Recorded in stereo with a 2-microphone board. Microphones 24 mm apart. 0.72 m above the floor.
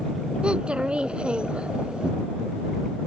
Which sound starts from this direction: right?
A child speaking, at 0.4 s.